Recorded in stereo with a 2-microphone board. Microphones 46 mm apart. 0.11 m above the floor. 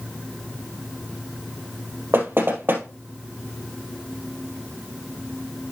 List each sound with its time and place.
2.1 s knocking: 50° right (ahead or behind), 2 m